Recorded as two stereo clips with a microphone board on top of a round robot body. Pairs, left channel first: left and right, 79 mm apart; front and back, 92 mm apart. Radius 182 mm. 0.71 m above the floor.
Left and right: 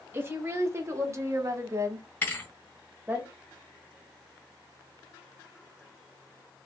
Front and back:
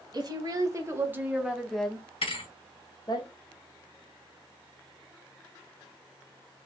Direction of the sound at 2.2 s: 25° left.